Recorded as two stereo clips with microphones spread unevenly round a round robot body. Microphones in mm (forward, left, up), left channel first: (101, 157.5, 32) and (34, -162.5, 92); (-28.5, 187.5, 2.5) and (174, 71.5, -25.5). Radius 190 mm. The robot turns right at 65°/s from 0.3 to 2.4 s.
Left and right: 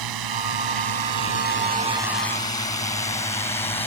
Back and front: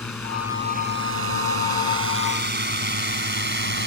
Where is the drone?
125° right; by 3.9 s straight ahead.